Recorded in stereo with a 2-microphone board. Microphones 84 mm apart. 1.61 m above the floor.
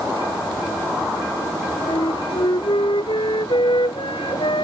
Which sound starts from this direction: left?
A flute, at 1.9 s.